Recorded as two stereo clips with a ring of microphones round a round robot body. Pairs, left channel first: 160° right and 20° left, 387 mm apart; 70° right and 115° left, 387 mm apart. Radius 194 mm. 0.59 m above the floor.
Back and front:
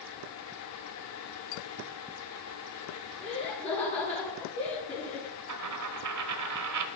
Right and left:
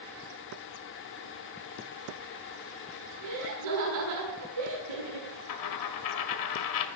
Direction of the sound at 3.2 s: 125° left.